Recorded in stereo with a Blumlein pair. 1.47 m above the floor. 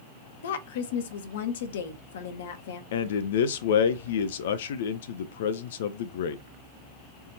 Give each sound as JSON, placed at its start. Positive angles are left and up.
{"t": 0.4, "sound": "a woman speaking", "azimuth_deg": 60, "distance_m": 0.9}
{"t": 2.9, "sound": "a man speaking", "azimuth_deg": 55, "distance_m": 0.5}